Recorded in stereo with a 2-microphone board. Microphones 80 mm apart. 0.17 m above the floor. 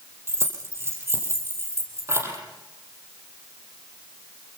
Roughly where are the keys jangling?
Right.